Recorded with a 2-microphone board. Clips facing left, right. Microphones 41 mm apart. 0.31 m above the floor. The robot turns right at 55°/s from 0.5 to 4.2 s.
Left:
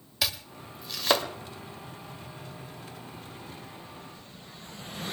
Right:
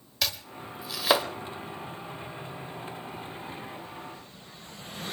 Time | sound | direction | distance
0.2 | chopping | 5° left (ahead or behind) | 1.1 m